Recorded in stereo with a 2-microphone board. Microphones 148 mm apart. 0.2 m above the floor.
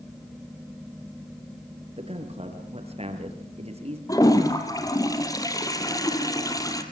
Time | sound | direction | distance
2.0 | a man speaking | 45° right (ahead or behind) | 4.5 m
4.1 | a toilet flushing | 25° left (ahead or behind) | 2.5 m